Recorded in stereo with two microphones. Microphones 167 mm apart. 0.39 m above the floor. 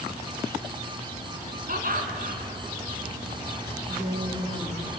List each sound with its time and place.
1.7 s laughter: 60° right (ahead or behind), 3.5 m
3.9 s a woman speaking: 50° right (ahead or behind), 6 m